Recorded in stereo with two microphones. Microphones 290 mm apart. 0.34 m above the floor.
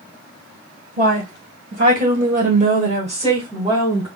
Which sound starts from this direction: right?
A woman speaking, at 1.0 s.